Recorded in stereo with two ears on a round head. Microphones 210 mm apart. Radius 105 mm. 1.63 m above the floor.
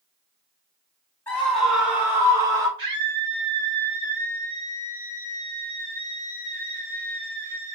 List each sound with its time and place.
1.3 s a scream: 10° left (ahead or behind), 3 m; by 2.7 s 15° right (ahead or behind), 4.5 m
2.8 s a scream: 20° right (ahead or behind), 4.5 m